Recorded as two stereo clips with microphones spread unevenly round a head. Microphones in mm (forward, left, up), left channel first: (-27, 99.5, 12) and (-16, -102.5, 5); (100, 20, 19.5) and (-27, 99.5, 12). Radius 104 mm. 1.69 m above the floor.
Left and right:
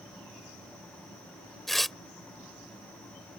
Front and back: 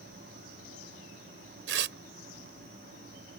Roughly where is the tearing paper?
Behind.